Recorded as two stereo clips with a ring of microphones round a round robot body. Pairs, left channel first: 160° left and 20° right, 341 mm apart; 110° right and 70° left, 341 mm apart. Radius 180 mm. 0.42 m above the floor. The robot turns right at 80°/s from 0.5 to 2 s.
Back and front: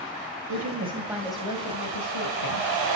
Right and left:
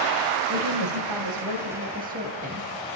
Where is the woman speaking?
10° left, 3 m; by 2.7 s 130° left, 3 m.